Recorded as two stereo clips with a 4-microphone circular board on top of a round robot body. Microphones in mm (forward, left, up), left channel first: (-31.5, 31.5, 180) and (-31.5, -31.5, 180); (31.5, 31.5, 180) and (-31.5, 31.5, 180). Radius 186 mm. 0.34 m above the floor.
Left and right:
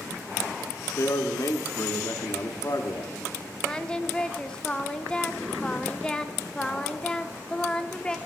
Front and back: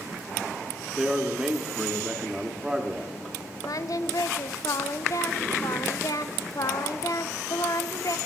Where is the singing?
15° left, 0.6 m.